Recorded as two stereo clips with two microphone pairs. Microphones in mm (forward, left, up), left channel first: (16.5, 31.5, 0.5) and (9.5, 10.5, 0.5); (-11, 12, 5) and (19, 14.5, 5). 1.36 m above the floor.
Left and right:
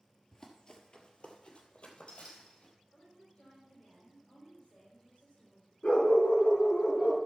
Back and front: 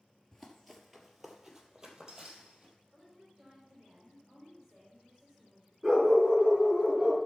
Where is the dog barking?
95° left, 6 m.